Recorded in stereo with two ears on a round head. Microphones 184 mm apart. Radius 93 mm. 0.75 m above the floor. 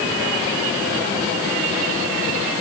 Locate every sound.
Only background noise.